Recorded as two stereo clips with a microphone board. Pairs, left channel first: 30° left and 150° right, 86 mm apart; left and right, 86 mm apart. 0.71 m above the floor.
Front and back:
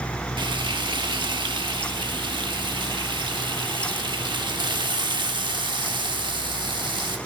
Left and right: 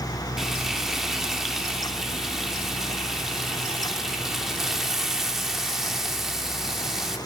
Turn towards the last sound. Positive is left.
turn(degrees=-175)